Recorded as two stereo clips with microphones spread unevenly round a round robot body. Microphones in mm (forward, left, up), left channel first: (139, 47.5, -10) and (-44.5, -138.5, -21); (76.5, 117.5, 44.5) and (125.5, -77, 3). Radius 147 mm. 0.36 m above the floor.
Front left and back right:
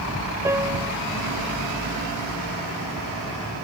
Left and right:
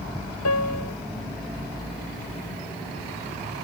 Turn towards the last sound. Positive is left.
turn(degrees=145)